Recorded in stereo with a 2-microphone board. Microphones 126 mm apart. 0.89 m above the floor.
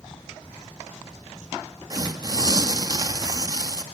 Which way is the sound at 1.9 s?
30° right (ahead or behind).